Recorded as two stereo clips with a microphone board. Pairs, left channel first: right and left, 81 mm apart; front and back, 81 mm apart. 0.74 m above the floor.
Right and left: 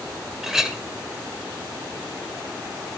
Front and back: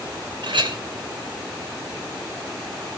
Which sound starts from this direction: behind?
A clink, at 0.4 s.